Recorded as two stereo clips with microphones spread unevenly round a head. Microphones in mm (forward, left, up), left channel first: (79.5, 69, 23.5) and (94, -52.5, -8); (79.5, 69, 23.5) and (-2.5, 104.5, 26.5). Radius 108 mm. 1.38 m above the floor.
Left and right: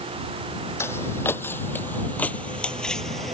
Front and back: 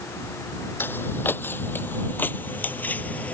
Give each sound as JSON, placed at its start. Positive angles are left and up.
{"t": 0.8, "sound": "footsteps", "azimuth_deg": 40}